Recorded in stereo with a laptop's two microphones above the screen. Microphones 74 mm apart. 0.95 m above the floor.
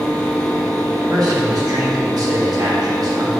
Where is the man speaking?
55° right (ahead or behind), 1.2 m.